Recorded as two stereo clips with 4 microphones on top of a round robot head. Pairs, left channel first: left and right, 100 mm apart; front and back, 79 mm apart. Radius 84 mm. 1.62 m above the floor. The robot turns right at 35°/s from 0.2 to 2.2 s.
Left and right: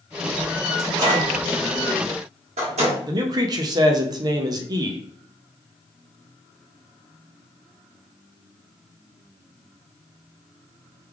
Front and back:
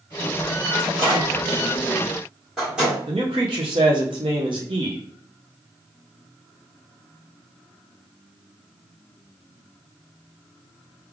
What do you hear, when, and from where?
0.8 s a microwave: 145° right, 1.5 m; by 3.0 s 95° right, 1.5 m
3.1 s a man speaking: 135° right, 0.5 m